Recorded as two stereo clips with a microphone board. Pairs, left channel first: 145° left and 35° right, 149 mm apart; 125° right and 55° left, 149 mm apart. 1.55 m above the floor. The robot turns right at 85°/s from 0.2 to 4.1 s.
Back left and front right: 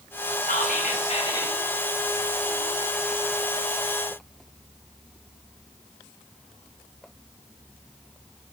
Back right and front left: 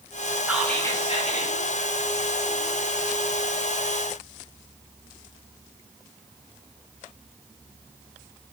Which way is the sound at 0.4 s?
130° left.